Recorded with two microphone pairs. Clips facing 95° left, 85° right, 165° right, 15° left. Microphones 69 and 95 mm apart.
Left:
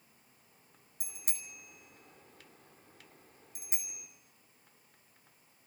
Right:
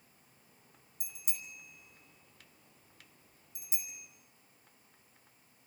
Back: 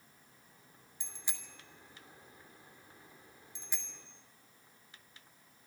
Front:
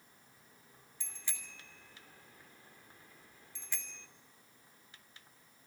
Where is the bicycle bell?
120° left, 2.5 m.